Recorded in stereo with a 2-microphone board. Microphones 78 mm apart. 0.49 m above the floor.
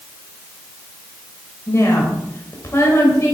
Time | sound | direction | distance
1.7 | a woman speaking | 35° left (ahead or behind) | 2.5 m